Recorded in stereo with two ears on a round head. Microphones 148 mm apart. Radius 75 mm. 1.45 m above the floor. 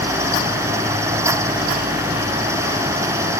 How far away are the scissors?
No scissors in this recording.